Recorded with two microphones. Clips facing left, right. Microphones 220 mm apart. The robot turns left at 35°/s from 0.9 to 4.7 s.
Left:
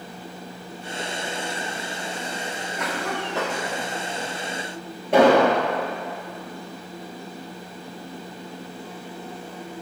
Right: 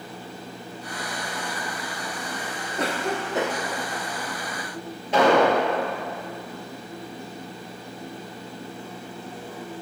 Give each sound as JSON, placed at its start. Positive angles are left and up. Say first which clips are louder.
{"t": 2.8, "sound": "a cough", "louder": "right 3 dB", "azimuth_deg": -135, "distance_m": 0.5}
{"t": 5.1, "sound": "an explosion", "louder": "left 3 dB", "side_deg": 60, "distance_m": 2.5}